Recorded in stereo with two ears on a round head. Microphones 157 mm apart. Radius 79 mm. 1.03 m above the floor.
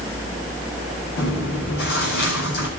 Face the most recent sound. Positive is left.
turn(degrees=60)  # may be behind; listen again after turning